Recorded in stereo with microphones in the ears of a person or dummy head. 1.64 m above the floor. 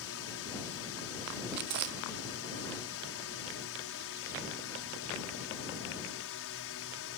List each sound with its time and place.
0.0 s a drone: 70° left (ahead or behind); by 7.2 s 65° left (ahead or behind)
1.5 s chewing: 50° right (ahead or behind)